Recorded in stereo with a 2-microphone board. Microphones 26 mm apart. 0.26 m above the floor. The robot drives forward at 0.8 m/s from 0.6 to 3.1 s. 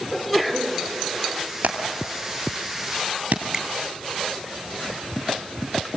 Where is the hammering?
80° right, 3.5 m; by 3.4 s 70° right (ahead or behind), 3.5 m.